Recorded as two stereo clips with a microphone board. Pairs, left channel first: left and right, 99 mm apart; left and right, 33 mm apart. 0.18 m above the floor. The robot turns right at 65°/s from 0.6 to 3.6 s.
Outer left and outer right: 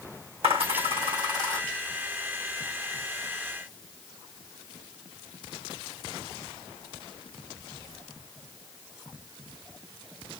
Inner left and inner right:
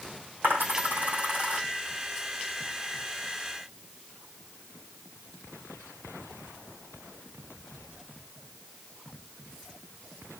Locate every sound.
0.4 s a dropped coin: 80° right, 4 m; by 1.6 s 30° right (ahead or behind), 4 m